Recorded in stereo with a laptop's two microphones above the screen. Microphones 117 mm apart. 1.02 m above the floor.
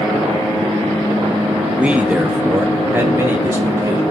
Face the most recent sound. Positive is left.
turn(degrees=-20)  # may be behind; listen again after turning